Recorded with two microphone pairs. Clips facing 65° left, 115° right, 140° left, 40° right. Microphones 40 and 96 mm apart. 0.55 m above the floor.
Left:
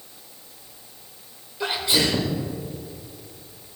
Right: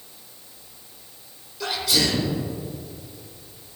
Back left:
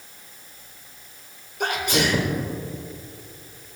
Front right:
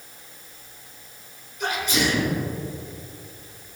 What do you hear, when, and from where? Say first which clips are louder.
1.6 s a sneeze: left 1 dB, back left 1 dB; 125° left, 1.5 m